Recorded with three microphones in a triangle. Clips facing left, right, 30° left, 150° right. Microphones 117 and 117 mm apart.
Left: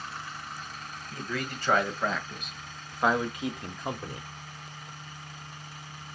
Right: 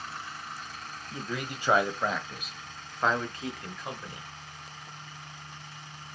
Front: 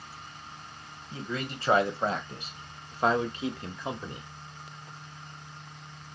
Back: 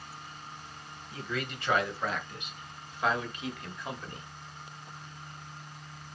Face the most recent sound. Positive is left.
turn(degrees=75)